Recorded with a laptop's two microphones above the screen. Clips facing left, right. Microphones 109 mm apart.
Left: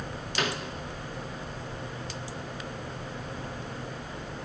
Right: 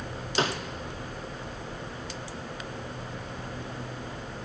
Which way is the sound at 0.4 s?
30° right (ahead or behind).